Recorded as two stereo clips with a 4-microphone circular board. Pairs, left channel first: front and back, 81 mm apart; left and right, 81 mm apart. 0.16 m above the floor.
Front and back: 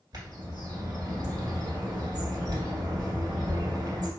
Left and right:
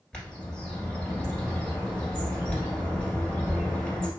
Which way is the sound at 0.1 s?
165° left.